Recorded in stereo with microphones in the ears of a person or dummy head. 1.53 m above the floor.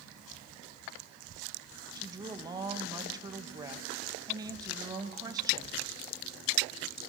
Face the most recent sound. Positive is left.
turn(degrees=-20)  # may be behind; listen again after turning